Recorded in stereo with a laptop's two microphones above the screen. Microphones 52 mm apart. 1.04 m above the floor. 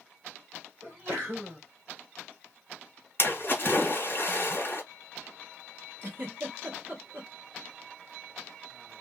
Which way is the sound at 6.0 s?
40° right (ahead or behind).